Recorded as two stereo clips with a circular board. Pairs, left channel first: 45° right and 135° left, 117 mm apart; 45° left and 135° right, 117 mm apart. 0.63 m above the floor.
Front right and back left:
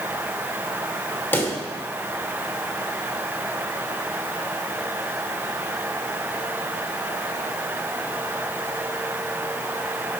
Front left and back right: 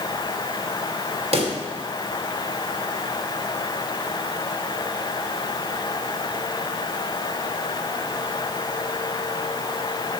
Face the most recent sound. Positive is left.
turn(degrees=-115)